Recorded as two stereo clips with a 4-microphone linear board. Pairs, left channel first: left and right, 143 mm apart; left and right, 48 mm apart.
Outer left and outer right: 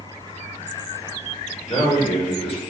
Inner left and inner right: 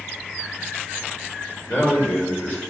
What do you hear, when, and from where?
1.7 s a man speaking: 45° left (ahead or behind), 5.5 m